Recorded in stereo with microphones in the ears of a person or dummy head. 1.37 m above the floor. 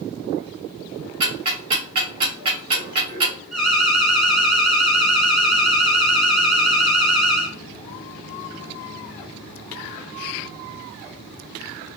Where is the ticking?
25° right (ahead or behind), 3 m.